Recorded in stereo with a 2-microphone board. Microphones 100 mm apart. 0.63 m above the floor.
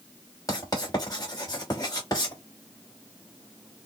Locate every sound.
0.5 s writing: 40° left (ahead or behind), 2.5 m